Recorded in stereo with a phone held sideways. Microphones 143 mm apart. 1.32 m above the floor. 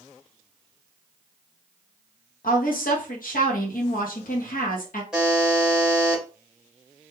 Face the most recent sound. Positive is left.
turn(degrees=-5)  # may be behind; listen again after turning